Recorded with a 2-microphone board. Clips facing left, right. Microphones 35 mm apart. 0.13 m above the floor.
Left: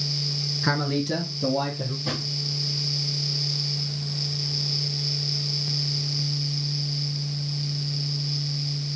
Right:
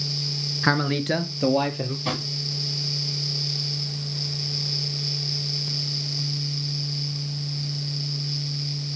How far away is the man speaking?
About 1.1 m.